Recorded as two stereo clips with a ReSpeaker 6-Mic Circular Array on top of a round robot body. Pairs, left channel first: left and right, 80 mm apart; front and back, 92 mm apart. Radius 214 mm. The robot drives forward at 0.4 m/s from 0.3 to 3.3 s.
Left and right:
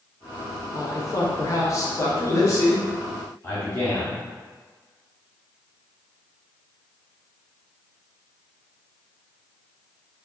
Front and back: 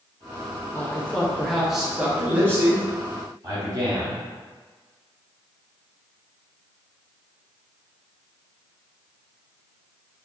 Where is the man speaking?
60° left, 1.1 m; by 4.2 s 140° left, 1.2 m.